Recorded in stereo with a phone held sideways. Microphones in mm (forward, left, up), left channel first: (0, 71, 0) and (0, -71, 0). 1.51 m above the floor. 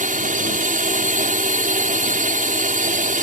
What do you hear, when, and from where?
0.0 s a drone: 70° right (ahead or behind)